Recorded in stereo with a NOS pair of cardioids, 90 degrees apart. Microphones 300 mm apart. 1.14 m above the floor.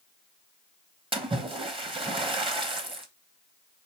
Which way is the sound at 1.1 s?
20° right.